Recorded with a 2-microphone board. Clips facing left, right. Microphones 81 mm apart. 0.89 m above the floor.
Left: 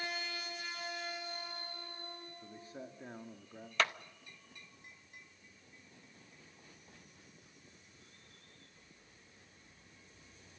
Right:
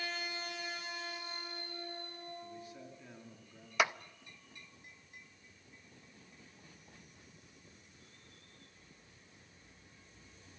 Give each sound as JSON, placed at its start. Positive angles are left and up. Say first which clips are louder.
{"t": 2.4, "sound": "a man speaking", "louder": "even", "side_deg": 35, "distance_m": 1.8}
{"t": 3.8, "sound": "a clap", "louder": "right 2 dB", "side_deg": -10, "distance_m": 0.6}